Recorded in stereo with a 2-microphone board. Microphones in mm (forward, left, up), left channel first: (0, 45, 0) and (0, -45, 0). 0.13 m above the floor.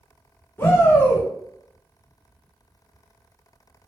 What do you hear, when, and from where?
0.6 s a shout: 30° left (ahead or behind), 1.2 m